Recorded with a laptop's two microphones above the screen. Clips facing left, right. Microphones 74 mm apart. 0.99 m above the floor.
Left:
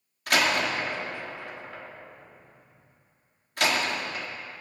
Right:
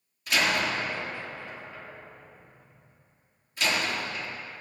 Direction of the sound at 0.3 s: 65° left (ahead or behind).